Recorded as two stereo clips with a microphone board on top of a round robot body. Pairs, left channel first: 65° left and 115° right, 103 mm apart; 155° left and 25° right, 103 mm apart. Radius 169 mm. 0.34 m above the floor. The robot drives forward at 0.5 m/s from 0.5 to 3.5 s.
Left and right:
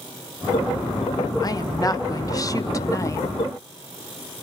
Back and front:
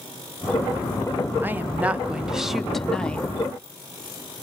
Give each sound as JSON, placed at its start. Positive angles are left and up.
{"t": 1.4, "sound": "a woman speaking", "azimuth_deg": 40, "distance_m": 1.7}